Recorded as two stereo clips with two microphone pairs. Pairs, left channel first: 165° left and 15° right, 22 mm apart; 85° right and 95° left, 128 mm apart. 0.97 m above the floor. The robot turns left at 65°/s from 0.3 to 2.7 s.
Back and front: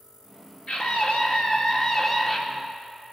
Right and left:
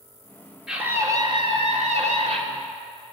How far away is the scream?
About 2.5 m.